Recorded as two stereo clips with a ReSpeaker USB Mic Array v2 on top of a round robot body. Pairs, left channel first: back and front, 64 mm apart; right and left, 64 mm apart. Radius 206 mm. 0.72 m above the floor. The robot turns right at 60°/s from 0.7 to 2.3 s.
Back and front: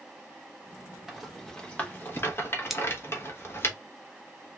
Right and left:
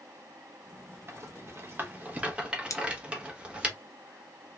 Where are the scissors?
85° right, 0.7 m.